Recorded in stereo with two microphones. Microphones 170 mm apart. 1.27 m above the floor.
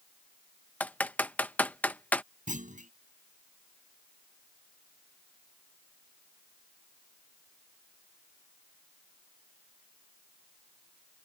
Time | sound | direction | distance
0.8 | typing on a keyboard | 10° left (ahead or behind) | ?
2.5 | a clunk | 50° right (ahead or behind) | ?